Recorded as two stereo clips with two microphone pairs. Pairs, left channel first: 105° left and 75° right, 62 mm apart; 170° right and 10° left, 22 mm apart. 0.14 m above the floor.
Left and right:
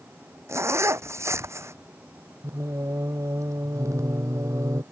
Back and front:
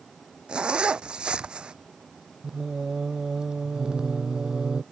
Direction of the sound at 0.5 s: 35° right.